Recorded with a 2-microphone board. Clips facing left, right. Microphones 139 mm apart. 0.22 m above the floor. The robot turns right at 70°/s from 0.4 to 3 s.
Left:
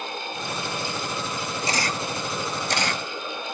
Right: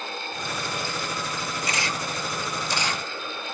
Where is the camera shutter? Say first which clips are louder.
Left 4 dB; 30° left (ahead or behind), 0.6 m; by 3.0 s 55° left (ahead or behind), 0.6 m.